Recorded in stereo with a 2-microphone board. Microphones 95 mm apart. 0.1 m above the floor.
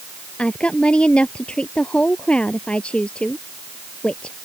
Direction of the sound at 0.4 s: 10° left (ahead or behind).